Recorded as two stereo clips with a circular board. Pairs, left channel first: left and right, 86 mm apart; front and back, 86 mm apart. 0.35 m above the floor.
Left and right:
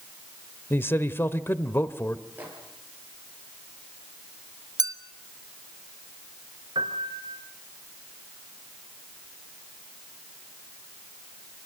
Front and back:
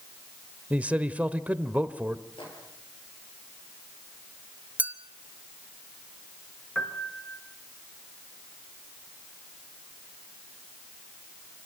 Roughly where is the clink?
Right.